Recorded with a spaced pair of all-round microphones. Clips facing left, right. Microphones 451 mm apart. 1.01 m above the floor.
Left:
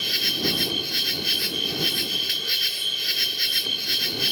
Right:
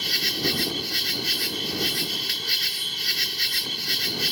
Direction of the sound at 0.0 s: 15° right (ahead or behind).